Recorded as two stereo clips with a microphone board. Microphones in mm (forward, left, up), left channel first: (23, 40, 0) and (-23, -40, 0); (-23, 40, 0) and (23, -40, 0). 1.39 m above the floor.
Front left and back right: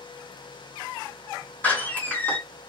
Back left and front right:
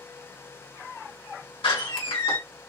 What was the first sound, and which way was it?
A door slam, 130° left.